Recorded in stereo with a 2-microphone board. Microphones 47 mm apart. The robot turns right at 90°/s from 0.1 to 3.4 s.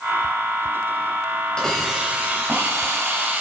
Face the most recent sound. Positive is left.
turn(degrees=-35)